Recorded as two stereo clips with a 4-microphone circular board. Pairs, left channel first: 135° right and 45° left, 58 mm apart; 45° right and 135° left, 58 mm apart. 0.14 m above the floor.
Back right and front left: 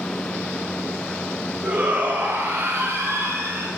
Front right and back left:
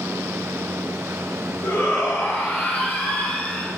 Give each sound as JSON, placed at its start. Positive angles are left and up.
{"t": 1.6, "sound": "a shout", "azimuth_deg": -20, "distance_m": 2.0}